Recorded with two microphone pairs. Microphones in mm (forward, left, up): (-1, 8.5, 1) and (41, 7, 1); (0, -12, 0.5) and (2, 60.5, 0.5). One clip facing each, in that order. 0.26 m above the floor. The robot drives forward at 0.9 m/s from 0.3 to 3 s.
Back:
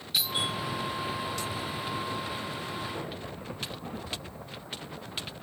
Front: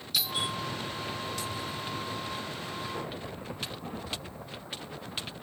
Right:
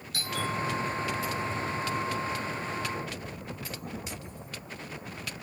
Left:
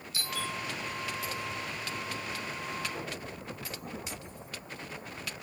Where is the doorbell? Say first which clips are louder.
Back 1 dB, right 4 dB; 115° right, 4 m; by 0.5 s 120° right, 4.5 m.